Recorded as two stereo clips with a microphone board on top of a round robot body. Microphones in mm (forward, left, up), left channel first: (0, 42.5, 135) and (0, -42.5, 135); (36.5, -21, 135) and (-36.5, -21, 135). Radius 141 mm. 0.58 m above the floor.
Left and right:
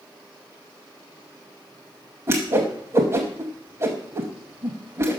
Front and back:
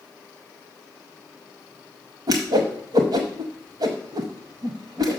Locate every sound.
2.3 s a whoosh: 150° right, 0.6 m